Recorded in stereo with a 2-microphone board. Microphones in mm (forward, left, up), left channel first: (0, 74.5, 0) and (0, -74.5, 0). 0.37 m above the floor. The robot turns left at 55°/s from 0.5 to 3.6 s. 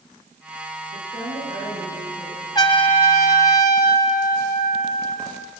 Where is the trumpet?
145° left, 1.6 m; by 5.3 s 90° left, 1.6 m.